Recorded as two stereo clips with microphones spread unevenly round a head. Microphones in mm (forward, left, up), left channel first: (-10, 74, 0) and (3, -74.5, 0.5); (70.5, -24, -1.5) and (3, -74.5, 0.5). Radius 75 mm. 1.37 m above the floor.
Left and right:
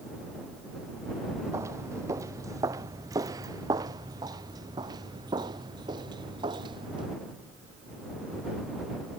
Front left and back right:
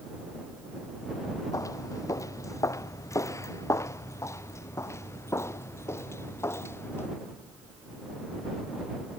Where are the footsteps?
15° right; by 7.1 s 25° right.